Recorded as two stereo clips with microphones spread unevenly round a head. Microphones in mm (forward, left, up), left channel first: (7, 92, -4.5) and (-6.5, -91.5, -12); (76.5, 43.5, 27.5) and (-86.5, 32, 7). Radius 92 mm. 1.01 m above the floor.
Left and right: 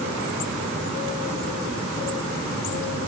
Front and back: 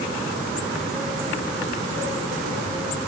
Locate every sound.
Only background noise.